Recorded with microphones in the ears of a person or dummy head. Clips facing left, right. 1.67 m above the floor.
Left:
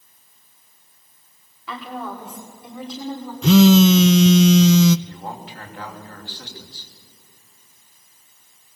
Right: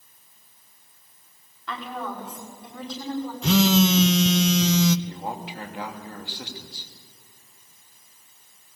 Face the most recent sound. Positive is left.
turn(degrees=-5)  # may be behind; listen again after turning